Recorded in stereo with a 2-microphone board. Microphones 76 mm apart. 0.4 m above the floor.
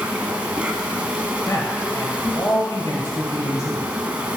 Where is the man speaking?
45° left (ahead or behind), 1.9 m.